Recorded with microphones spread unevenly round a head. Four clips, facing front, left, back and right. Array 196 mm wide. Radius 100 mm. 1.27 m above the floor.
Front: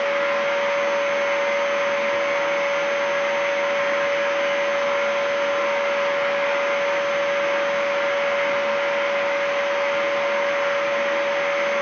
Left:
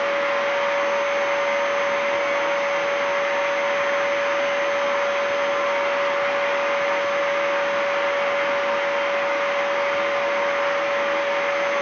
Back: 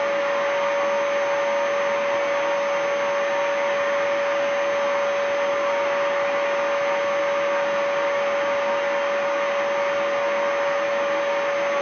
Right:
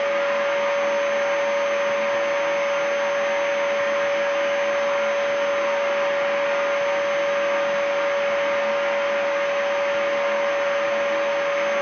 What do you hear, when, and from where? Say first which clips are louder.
0.0 s a machine running: even, even; 125° left, 1.4 m